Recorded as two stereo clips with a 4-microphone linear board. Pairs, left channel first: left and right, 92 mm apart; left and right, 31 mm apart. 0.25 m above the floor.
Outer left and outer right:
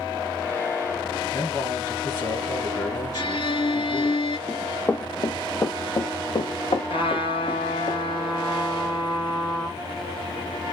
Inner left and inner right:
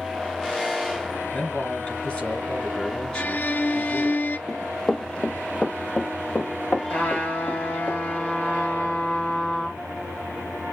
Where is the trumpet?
75° left (ahead or behind), 2.5 m.